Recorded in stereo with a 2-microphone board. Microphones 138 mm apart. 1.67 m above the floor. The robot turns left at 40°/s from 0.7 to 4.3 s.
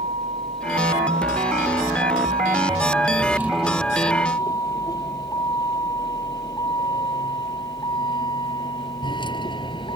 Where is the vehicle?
60° right (ahead or behind); by 10.0 s 35° left (ahead or behind).